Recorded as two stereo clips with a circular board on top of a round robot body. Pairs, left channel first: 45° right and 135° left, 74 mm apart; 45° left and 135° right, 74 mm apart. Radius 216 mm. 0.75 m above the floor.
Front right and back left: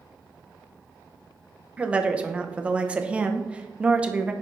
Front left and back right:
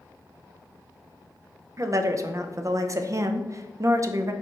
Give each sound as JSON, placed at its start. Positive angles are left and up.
{"t": 1.8, "sound": "a woman speaking", "azimuth_deg": -155, "distance_m": 0.6}